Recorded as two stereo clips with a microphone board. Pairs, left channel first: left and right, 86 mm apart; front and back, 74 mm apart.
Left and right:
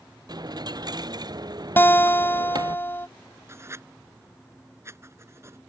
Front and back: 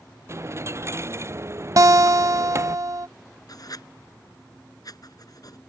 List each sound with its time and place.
0.3 s a dropped coin: 130° right
1.8 s a guitar: 150° left
3.5 s writing: 30° right